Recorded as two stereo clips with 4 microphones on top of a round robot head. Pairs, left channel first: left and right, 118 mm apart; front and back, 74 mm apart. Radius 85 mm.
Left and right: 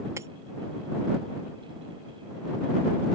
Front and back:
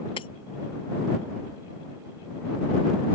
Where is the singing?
No singing in this recording.